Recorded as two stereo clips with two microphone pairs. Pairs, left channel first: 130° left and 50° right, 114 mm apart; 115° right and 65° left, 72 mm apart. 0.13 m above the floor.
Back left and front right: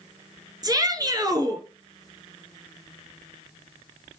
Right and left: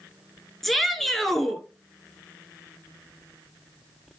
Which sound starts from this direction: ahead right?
A shout, at 0.6 s.